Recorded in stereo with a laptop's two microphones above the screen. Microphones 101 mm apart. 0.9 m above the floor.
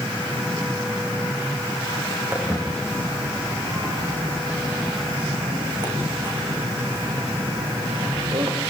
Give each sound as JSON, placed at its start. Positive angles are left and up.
{"t": 2.3, "sound": "footsteps", "side_deg": -20, "distance_m": 6.0}